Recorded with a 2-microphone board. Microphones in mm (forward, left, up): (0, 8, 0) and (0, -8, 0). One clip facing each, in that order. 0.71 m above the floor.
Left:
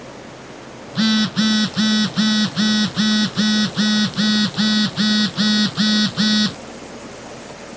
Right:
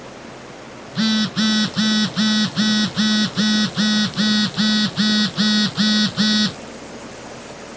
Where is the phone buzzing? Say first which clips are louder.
Left 2 dB; 10° left (ahead or behind).